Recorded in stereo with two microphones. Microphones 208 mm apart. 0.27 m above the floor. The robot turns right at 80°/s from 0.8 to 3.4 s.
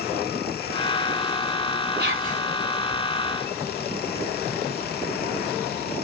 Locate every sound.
2.0 s whispering: 70° right, 1.6 m; by 2.4 s 35° right, 1.6 m